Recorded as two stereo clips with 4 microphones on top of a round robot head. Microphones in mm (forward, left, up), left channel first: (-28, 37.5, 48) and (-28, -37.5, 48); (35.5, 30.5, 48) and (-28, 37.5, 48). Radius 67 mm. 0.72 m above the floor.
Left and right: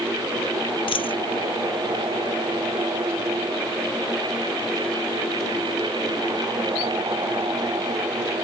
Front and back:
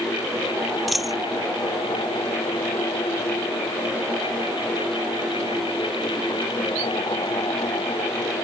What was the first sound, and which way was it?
A dropped coin, 85° left.